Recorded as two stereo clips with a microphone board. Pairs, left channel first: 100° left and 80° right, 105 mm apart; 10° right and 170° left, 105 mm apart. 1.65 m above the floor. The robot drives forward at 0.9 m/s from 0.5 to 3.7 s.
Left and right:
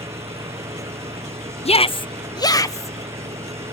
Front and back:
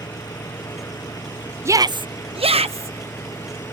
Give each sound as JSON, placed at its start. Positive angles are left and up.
{"t": 0.0, "sound": "an engine running", "azimuth_deg": -60}
{"t": 1.6, "sound": "a shout", "azimuth_deg": 105}